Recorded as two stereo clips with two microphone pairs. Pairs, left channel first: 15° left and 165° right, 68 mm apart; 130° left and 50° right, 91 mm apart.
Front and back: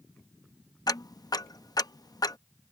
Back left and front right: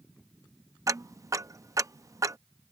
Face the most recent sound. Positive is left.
turn(degrees=5)